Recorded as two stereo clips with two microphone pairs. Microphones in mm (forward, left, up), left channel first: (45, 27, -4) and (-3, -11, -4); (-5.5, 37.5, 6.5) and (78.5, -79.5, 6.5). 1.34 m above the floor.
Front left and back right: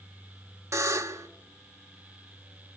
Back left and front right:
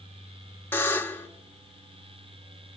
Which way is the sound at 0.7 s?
160° right.